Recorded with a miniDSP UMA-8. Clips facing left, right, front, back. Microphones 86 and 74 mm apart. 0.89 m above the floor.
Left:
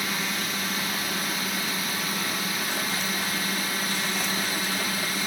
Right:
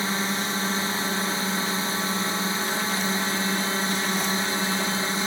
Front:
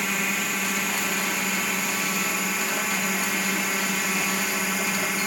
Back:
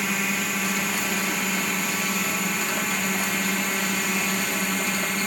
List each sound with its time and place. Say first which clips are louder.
0.0 s a drone: right 3 dB, back 1 dB; 90° right; by 5.3 s 80° right